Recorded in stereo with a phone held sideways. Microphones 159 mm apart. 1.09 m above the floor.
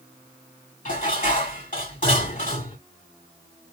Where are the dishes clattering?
55° left (ahead or behind), 2.5 m.